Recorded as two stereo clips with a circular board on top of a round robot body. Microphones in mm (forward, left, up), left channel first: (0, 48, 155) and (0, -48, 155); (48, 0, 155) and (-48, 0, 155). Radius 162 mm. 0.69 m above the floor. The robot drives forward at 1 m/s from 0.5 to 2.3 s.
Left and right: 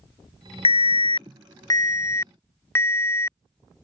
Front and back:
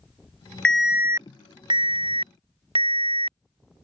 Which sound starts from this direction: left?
An alarm, at 0.7 s.